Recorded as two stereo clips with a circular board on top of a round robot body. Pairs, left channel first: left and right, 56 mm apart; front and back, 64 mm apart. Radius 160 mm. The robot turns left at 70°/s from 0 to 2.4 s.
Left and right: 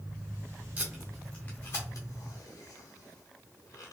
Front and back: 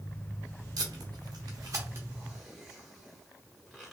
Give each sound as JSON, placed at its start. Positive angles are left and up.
{"t": 0.8, "sound": "tape being pulled", "azimuth_deg": -155, "distance_m": 0.9}